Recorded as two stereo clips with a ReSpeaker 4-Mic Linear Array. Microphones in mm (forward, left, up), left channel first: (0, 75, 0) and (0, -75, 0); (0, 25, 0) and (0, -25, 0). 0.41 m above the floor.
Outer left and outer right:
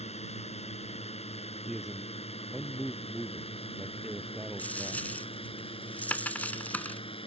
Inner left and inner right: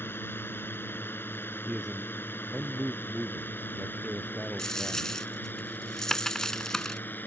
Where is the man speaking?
Centre (ahead or behind).